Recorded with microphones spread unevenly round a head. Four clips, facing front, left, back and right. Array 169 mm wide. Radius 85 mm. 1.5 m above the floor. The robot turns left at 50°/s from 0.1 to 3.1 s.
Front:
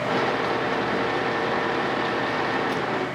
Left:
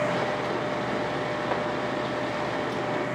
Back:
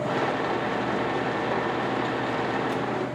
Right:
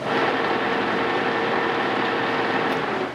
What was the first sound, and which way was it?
Only background noise.